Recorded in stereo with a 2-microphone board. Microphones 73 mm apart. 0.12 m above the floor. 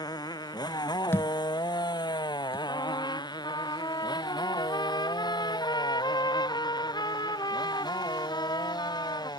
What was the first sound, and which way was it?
A motorcycle, 70° left (ahead or behind).